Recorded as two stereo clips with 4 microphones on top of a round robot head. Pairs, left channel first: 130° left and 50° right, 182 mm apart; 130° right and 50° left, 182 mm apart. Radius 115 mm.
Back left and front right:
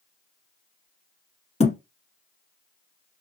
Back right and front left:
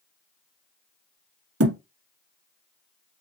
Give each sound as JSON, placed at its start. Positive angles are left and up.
{"t": 1.6, "sound": "a thud", "azimuth_deg": 75, "distance_m": 1.5}